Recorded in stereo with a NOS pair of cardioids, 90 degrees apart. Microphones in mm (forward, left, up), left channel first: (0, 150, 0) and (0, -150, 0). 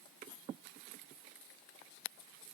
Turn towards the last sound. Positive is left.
No sound to turn to.